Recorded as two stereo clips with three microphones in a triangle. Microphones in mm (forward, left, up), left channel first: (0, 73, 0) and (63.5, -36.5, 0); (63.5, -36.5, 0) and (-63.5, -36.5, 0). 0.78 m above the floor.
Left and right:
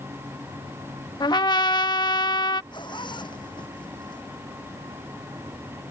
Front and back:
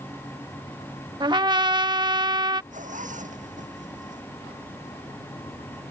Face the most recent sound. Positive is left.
turn(degrees=175)